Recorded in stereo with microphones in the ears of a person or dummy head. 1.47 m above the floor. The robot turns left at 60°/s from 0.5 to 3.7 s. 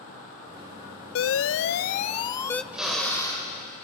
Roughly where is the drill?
Behind.